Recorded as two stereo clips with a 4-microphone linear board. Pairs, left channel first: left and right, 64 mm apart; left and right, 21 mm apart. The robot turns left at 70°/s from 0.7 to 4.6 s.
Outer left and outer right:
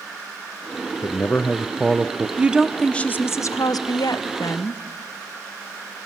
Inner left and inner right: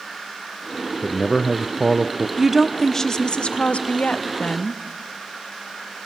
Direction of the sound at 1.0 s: 55° left.